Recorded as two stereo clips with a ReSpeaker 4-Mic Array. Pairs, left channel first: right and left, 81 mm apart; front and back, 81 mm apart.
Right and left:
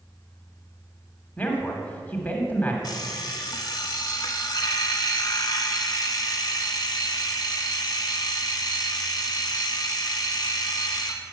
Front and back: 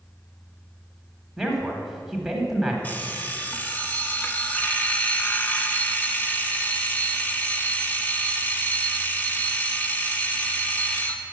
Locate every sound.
1.4 s a man speaking: 100° right, 1.5 m
2.8 s an alarm clock: 65° right, 0.9 m